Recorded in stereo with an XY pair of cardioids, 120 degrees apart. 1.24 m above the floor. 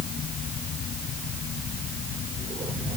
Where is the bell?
I don't hear a bell.